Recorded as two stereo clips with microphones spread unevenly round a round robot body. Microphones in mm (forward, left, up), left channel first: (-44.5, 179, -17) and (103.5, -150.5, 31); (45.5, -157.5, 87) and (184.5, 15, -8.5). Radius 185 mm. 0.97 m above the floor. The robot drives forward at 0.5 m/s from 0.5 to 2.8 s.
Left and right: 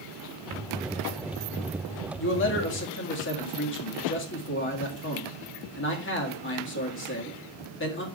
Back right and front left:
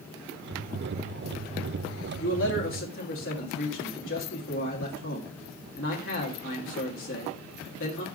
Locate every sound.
2.2 s a man speaking: 170° left, 1.5 m